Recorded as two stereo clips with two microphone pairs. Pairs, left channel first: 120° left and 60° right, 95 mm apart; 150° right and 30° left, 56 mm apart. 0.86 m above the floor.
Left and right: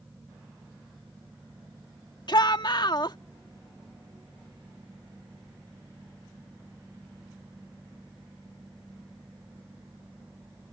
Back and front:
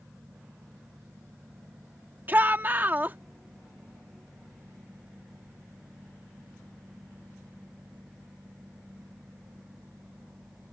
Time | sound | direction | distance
2.3 | a shout | 85° left | ?